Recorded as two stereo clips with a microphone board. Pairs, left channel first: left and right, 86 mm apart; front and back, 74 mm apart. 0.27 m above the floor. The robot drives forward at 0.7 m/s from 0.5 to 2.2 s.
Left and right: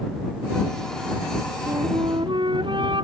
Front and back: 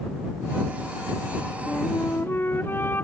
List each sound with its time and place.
1.7 s a flute: 60° right